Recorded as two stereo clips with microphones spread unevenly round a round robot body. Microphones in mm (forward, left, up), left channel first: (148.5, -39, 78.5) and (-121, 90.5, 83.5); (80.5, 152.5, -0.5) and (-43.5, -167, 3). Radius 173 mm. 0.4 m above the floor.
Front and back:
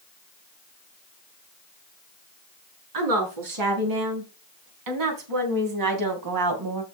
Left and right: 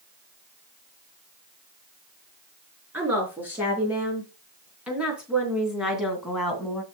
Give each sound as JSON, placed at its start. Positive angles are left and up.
{"t": 2.9, "sound": "a woman speaking", "azimuth_deg": 165, "distance_m": 5.0}